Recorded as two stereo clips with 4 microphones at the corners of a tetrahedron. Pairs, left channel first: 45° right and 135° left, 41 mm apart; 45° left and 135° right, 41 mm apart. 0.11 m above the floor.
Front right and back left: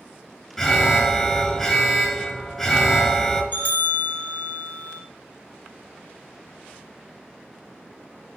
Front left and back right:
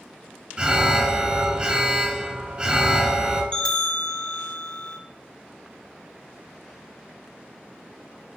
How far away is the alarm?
About 0.9 m.